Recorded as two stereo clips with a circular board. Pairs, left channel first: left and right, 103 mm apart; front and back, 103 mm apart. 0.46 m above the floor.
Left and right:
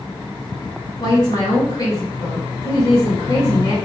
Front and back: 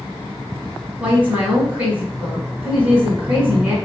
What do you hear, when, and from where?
1.0 s a woman speaking: 110° left, 2.0 m